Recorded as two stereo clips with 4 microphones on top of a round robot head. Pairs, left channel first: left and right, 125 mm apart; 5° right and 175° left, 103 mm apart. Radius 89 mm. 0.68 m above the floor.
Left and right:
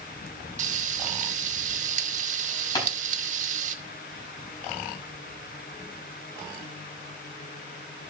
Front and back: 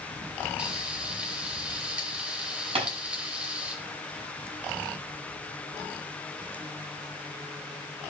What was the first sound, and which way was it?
Frying, 105° right.